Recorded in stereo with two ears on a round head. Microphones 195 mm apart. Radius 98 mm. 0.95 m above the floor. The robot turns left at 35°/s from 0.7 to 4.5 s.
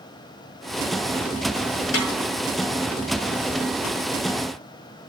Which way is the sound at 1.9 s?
80° left.